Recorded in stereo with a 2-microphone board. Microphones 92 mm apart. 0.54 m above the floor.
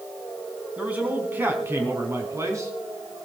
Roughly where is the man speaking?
Centre.